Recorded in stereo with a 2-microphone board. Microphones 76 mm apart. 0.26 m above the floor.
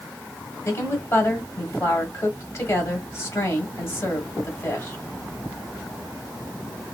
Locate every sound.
0.7 s a woman speaking: 35° left (ahead or behind), 1.5 m